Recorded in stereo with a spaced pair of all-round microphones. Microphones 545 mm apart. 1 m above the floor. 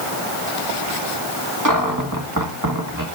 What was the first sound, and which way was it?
A cupboard door, 35° right (ahead or behind).